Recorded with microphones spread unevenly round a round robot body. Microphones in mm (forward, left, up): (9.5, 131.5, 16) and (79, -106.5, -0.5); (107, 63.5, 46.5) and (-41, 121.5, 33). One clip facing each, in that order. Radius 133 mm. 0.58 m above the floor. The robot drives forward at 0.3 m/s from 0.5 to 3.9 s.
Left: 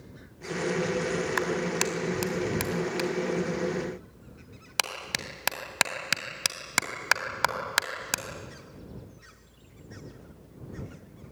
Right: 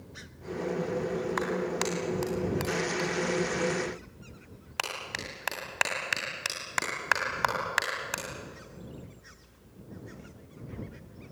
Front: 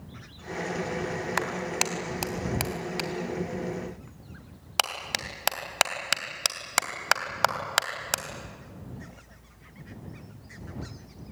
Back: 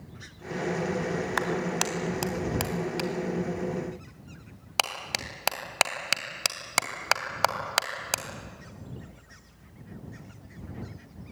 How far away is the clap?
About 3 m.